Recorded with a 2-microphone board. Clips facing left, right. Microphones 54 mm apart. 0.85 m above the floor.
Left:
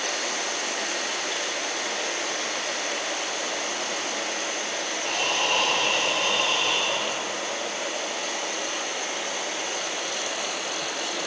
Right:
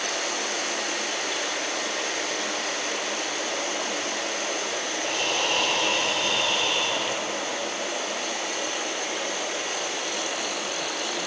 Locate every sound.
5.0 s breathing: 50° left (ahead or behind), 2.5 m